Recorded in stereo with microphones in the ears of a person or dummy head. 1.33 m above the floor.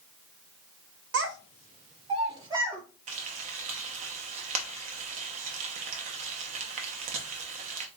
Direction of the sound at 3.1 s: 35° right (ahead or behind).